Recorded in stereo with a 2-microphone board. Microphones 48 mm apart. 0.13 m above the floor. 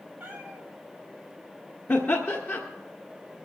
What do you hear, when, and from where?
0.2 s a cat meowing: 20° right (ahead or behind), 4.5 m
1.9 s laughter: 50° left (ahead or behind), 1.7 m